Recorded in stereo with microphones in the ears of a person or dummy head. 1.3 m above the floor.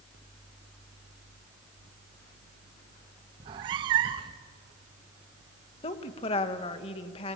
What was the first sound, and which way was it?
A cat meowing, 25° right (ahead or behind).